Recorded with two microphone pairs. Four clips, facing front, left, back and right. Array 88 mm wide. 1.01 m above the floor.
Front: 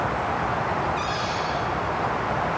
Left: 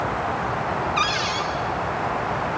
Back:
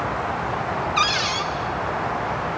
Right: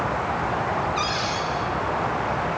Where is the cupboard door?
160° left, 1.8 m.